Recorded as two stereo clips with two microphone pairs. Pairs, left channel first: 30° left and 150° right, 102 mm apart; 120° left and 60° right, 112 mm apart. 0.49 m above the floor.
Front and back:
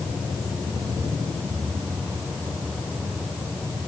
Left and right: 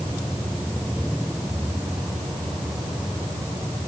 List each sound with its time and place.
Only background noise.